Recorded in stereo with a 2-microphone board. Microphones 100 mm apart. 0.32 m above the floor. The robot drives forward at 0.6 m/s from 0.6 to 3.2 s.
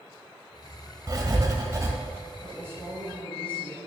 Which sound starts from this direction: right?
Writing, at 1.1 s.